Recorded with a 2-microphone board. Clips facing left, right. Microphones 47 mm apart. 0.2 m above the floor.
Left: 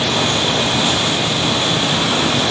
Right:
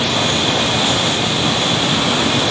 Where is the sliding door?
I don't hear a sliding door.